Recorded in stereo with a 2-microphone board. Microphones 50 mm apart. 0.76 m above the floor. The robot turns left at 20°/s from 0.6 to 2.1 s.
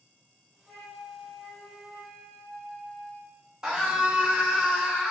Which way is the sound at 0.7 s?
25° left (ahead or behind).